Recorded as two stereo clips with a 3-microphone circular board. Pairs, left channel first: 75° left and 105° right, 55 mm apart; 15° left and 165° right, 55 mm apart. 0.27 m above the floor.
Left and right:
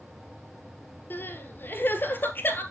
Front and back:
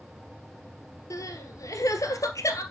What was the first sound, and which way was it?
Crying, 25° left.